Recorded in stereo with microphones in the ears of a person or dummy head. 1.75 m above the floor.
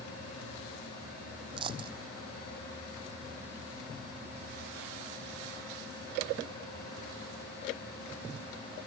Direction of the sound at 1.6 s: 30° right (ahead or behind).